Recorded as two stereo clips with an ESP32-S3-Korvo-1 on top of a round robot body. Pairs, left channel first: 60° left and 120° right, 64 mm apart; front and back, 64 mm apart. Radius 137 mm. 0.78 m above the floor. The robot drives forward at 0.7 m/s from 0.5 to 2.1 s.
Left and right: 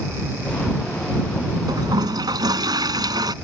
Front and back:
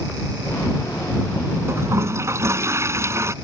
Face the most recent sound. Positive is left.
turn(degrees=-135)